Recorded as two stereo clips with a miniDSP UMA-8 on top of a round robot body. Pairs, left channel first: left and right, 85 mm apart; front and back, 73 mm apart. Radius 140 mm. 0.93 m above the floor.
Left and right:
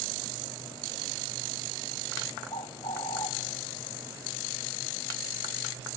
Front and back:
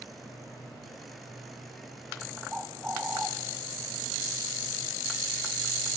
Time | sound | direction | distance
2.5 | a bird | 105° left | 0.6 m